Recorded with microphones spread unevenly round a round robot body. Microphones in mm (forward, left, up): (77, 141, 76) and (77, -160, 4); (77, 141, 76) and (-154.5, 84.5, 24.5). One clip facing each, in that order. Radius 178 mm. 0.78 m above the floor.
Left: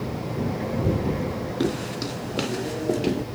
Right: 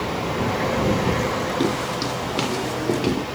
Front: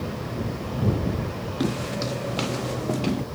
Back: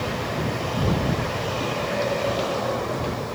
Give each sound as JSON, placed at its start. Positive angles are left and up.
{"t": 1.6, "sound": "footsteps", "azimuth_deg": -10}